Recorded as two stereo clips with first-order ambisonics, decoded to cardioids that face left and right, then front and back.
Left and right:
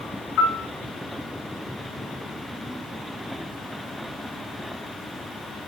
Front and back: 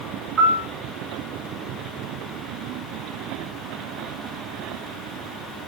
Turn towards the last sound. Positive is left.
turn(degrees=110)